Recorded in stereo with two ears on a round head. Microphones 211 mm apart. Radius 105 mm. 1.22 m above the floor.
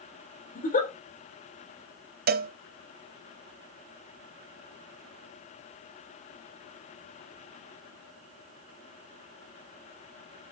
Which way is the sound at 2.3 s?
40° right (ahead or behind).